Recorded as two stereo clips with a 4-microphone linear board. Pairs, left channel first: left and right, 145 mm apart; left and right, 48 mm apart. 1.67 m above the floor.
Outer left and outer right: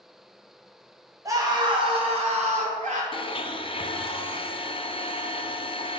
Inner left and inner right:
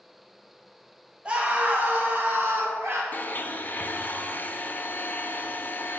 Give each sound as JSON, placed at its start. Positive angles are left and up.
{"t": 1.2, "sound": "a scream", "side_deg": -25, "distance_m": 1.5}
{"t": 3.1, "sound": "a blender", "side_deg": 35, "distance_m": 0.6}